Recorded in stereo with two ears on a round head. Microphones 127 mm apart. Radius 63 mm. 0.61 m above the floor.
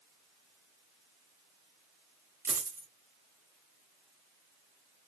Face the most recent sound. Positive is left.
turn(degrees=-20)  # may be behind; listen again after turning